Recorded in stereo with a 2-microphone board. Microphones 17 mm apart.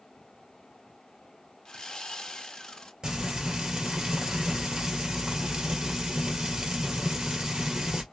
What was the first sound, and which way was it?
Sawing, 50° left (ahead or behind).